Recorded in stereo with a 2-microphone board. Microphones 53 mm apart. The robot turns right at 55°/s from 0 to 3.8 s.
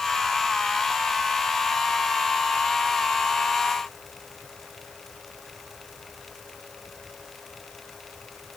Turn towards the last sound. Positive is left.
No sound to turn to.